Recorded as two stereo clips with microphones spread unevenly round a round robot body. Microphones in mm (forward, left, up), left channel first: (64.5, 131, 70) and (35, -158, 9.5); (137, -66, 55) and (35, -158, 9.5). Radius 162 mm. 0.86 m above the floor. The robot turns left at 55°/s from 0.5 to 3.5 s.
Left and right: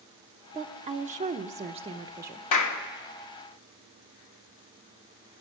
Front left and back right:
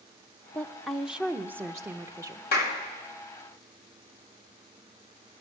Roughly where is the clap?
Ahead left.